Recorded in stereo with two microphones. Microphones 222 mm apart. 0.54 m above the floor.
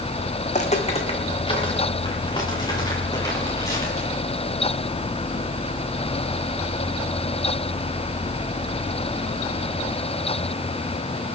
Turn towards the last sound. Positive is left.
turn(degrees=15)  # may be behind; listen again after turning